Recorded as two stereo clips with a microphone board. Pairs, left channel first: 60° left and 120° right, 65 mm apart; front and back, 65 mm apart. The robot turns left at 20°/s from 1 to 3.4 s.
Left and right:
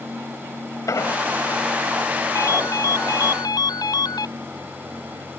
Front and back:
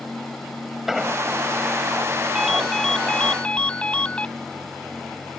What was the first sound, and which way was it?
An explosion, 95° left.